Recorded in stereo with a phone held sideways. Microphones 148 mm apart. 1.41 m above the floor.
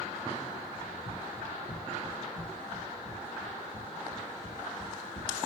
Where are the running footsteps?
70° left (ahead or behind), 4.5 m.